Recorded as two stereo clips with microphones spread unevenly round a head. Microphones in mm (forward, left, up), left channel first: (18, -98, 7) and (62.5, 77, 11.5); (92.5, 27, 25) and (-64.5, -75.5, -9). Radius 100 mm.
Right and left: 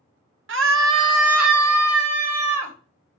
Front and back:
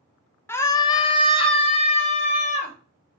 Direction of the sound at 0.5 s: 110° left.